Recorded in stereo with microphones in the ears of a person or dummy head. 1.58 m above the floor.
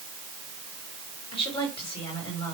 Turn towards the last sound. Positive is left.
turn(degrees=30)  # may be behind; listen again after turning